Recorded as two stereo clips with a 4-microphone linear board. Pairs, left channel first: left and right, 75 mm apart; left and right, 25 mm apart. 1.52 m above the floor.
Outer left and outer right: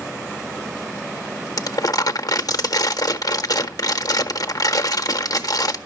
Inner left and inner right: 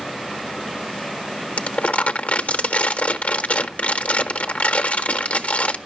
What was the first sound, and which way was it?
Crumpling, 50° left (ahead or behind).